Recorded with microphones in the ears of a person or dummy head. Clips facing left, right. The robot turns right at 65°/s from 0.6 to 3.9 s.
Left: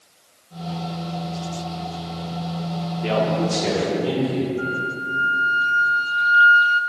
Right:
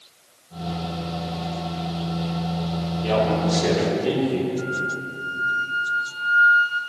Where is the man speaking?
145° left, 2.5 m; by 4.5 s 160° right, 2.5 m.